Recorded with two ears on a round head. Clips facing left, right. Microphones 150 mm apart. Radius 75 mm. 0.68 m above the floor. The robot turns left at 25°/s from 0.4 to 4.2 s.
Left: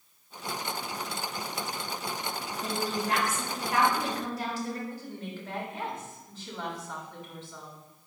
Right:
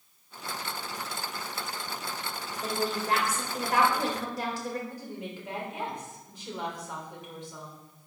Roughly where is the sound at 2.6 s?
Ahead.